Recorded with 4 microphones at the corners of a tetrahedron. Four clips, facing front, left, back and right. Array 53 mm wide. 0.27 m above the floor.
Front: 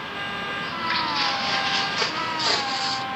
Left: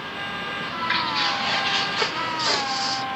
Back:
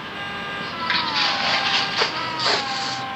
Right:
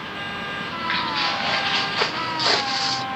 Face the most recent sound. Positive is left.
turn(degrees=-105)